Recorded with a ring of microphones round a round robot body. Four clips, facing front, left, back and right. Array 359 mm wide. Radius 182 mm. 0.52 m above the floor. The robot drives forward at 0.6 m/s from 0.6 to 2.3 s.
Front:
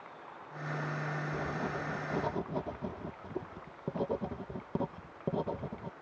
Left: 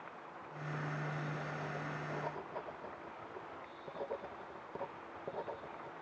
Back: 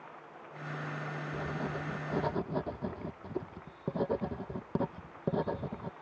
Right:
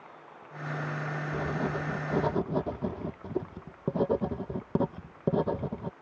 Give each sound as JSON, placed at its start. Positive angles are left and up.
{"t": 1.3, "sound": "writing", "azimuth_deg": -90}